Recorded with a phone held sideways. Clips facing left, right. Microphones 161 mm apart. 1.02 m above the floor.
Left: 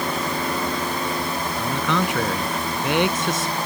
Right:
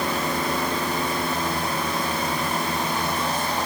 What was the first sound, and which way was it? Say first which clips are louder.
A man speaking: left 4 dB; 85° left.